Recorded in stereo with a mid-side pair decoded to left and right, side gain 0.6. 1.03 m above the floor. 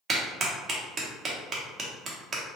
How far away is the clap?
About 0.9 m.